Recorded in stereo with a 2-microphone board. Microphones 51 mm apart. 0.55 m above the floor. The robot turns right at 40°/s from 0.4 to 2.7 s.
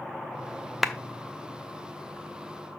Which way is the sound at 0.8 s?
Centre (ahead or behind).